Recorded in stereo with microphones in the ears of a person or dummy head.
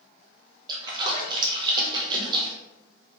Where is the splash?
25° right (ahead or behind), 0.6 m.